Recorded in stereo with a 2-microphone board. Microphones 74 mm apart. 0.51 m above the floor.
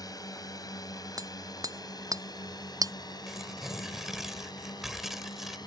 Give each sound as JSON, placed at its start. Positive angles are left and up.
{"t": 0.0, "sound": "a drone", "side_deg": 60}
{"t": 1.2, "sound": "hammering", "side_deg": -55}
{"t": 3.3, "sound": "tearing paper", "side_deg": -5}